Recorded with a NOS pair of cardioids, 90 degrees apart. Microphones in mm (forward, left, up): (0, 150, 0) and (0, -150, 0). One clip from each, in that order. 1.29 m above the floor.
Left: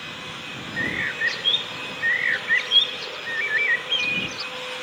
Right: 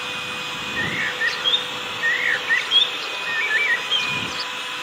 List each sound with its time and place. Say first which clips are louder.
0.8 s a bird: right 1 dB; 10° right